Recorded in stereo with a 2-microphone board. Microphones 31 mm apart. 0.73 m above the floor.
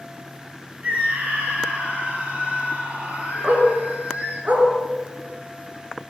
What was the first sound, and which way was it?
A scream, 55° right (ahead or behind).